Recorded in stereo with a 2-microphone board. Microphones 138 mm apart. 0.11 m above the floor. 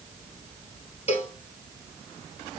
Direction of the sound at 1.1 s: 50° left (ahead or behind).